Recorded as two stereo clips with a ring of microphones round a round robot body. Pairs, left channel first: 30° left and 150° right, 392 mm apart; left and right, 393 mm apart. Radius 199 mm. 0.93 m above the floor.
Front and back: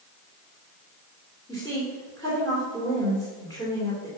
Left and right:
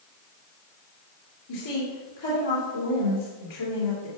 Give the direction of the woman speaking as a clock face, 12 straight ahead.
8 o'clock.